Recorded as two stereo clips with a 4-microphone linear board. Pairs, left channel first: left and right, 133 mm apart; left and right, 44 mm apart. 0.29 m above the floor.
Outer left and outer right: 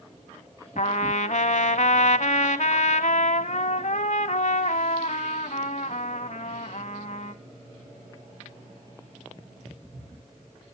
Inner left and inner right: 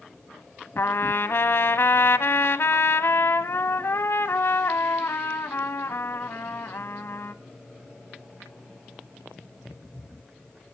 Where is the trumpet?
65° left (ahead or behind), 0.7 m.